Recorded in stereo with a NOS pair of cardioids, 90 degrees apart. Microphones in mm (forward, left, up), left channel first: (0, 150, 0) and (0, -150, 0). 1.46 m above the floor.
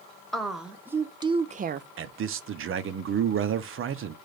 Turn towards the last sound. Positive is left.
turn(degrees=-45)